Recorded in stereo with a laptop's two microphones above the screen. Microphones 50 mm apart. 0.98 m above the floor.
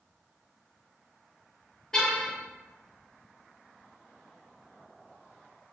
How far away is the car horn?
About 9.5 m.